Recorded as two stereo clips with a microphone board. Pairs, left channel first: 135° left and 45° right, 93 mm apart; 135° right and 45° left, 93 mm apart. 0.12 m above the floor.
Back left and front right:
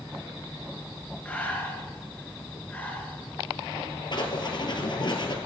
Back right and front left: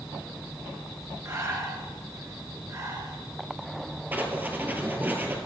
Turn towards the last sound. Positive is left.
turn(degrees=110)